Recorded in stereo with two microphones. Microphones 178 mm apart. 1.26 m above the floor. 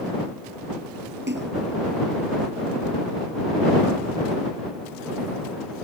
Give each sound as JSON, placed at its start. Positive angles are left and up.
{"t": 1.3, "sound": "a splash", "side_deg": -85}